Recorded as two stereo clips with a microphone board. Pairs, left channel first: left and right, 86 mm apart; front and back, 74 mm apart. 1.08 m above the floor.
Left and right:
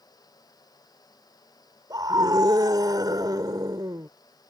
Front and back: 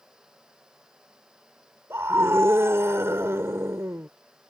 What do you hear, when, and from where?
1.9 s a scream: 125° right